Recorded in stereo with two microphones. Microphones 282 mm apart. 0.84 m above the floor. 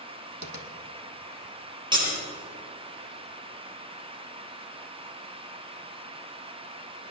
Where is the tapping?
80° right, 1.4 m.